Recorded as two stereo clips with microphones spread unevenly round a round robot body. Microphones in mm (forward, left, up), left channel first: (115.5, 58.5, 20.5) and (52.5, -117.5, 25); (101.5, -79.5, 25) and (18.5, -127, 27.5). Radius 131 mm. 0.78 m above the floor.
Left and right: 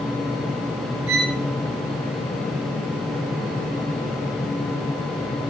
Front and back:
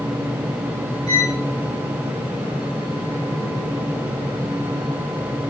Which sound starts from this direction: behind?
A violin, at 1.1 s.